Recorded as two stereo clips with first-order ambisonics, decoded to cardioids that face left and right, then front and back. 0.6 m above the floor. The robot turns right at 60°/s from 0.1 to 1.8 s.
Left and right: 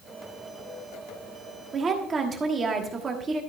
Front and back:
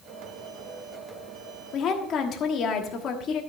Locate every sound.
1.7 s a woman speaking: 35° right, 1.3 m; by 3.4 s 30° right, 1.3 m